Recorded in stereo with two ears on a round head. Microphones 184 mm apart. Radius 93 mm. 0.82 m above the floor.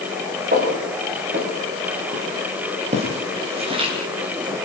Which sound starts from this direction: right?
Footsteps, at 0.5 s.